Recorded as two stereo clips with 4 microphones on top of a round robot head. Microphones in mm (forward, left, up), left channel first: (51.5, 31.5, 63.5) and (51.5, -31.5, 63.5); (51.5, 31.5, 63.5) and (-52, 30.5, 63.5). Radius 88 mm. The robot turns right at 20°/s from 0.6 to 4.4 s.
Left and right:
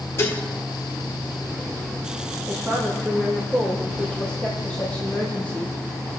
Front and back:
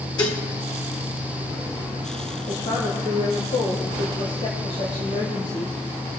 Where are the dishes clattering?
45° left, 1.5 m.